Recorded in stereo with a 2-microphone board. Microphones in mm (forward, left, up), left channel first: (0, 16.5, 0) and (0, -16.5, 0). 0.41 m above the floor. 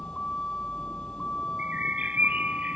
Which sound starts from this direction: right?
A bird, at 1.6 s.